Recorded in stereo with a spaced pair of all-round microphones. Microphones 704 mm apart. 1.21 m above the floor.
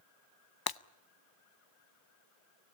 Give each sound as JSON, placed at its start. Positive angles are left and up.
{"t": 0.7, "sound": "breaking glass", "side_deg": 35, "distance_m": 0.5}